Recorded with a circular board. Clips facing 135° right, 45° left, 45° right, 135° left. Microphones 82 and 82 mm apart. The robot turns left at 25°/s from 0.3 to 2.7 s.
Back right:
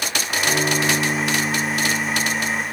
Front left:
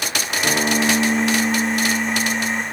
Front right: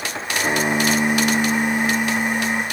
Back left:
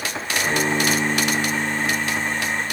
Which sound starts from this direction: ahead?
A guitar, at 0.4 s.